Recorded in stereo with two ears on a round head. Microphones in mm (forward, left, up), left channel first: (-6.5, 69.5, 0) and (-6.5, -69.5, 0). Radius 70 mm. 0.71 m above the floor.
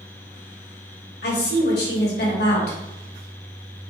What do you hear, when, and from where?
1.2 s a woman speaking: 75° left (ahead or behind), 2 m